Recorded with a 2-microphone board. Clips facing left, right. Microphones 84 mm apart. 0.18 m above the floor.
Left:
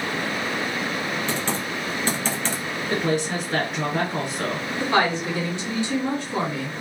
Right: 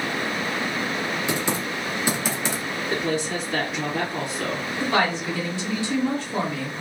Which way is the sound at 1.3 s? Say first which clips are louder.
Right 1 dB; 10° right (ahead or behind).